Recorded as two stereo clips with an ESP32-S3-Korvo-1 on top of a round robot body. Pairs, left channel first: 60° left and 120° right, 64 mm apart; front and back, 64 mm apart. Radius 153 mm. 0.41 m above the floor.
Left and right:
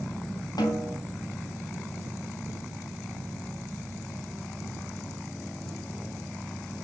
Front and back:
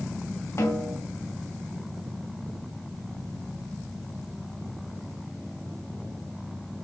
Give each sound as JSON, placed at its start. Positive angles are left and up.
{"t": 0.6, "sound": "a snare drum", "azimuth_deg": 45, "distance_m": 4.0}